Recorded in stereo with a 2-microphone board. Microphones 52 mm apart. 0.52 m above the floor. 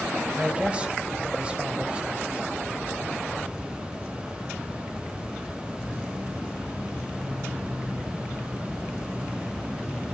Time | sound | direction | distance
0.4 | a man speaking | 20° right (ahead or behind) | 3.5 m